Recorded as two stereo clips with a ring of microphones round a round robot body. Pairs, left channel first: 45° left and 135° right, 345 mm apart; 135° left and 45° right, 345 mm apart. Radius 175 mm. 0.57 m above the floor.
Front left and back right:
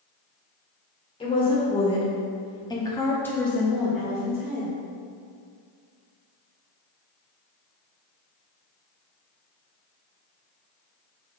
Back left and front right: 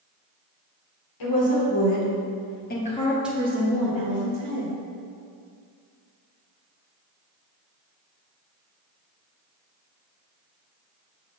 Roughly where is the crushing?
I don't hear crushing.